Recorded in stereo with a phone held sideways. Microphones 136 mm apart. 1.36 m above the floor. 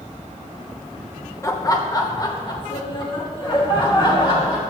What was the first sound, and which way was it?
Laughter, 25° left (ahead or behind).